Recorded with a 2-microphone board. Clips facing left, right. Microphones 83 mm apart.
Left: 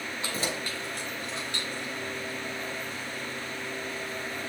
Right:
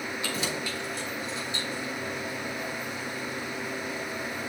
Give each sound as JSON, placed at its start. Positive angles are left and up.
{"t": 0.2, "sound": "keys jangling", "side_deg": 35, "distance_m": 1.6}